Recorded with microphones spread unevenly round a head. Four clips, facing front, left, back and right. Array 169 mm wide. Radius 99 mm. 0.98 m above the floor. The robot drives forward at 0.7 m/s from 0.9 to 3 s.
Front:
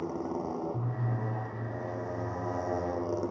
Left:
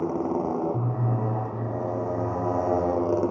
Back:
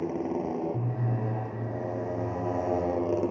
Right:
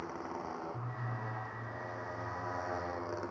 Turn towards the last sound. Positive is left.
turn(degrees=115)